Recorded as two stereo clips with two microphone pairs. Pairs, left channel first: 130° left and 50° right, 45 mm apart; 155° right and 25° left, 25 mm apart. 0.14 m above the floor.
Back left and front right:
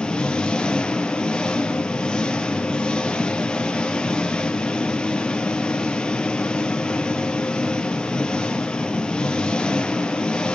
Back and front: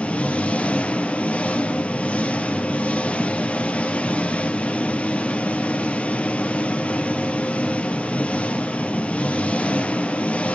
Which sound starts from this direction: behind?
An engine running, at 0.0 s.